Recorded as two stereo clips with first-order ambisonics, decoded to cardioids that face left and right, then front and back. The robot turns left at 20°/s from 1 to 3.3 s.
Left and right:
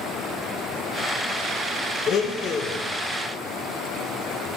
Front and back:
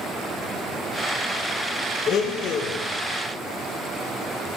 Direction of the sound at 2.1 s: 45° left.